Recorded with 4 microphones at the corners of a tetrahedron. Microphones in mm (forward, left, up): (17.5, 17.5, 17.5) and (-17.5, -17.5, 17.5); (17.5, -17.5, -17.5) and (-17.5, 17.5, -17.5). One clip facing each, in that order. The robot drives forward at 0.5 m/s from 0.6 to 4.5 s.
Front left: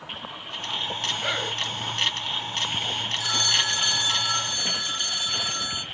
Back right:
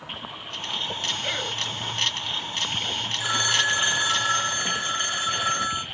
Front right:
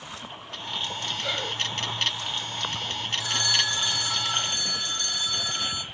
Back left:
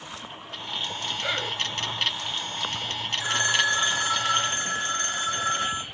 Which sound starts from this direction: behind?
A phone ringing, at 3.2 s.